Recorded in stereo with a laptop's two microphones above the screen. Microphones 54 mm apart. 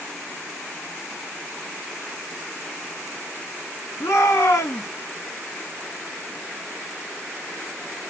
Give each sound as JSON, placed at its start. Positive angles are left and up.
{"t": 4.0, "sound": "a shout", "side_deg": 75, "distance_m": 1.5}